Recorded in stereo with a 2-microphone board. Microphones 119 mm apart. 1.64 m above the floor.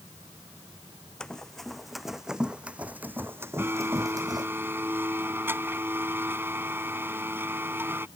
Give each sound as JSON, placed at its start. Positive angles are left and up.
{"t": 1.2, "sound": "running footsteps", "side_deg": 5}
{"t": 3.6, "sound": "a blender", "side_deg": -15}